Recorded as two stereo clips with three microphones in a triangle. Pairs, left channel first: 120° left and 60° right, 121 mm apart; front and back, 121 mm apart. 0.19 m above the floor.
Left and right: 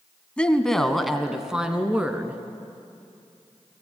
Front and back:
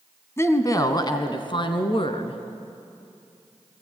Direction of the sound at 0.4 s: 45° left.